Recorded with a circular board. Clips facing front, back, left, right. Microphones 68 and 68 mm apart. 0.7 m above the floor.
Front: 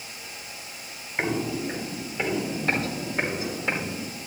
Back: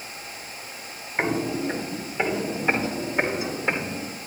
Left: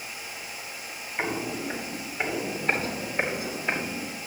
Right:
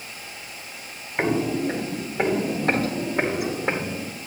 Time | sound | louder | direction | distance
1.2 | footsteps | back 2 dB, right 8 dB | 110° right | 0.9 m